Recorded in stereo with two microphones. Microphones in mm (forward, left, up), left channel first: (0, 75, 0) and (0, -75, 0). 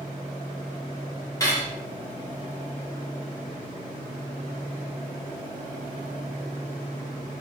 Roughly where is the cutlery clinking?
Left.